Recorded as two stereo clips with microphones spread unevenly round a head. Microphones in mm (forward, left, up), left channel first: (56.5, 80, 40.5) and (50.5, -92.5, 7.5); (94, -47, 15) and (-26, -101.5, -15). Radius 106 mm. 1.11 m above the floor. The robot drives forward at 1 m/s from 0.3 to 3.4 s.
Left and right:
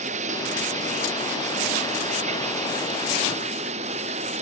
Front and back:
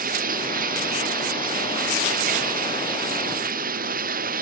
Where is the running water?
150° right; by 4.4 s 155° right.